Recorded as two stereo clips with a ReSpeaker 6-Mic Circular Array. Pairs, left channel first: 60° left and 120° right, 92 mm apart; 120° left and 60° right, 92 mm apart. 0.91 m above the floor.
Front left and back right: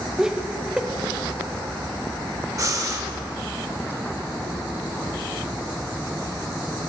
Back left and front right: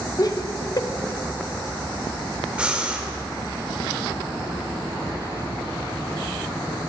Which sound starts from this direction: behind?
Laughter, at 0.2 s.